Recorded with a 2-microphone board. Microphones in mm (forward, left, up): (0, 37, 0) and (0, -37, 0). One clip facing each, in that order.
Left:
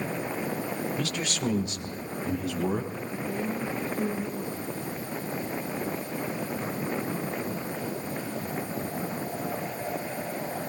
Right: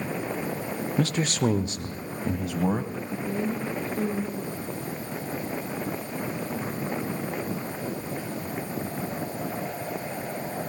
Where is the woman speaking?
45° right (ahead or behind), 6 m.